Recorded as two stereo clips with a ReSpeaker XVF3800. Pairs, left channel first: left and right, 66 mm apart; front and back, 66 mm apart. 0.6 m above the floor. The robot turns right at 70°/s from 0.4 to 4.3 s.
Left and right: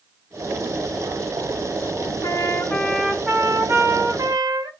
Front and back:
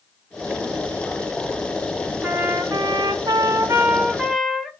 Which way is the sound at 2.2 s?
120° left.